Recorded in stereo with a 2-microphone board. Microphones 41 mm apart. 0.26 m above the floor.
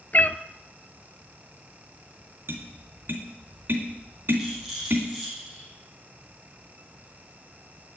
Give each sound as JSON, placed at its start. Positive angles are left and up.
{"t": 0.1, "sound": "a cat meowing", "side_deg": 45, "distance_m": 0.5}
{"t": 2.5, "sound": "tapping", "side_deg": -60, "distance_m": 2.5}
{"t": 4.4, "sound": "a rattle", "side_deg": -5, "distance_m": 6.0}